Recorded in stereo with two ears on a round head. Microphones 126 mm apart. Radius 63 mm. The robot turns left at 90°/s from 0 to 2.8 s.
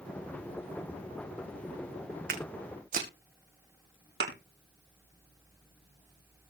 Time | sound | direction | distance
2.3 | footsteps | 65° right (ahead or behind) | 2.5 m
4.2 | a thud | 75° right (ahead or behind) | 3.5 m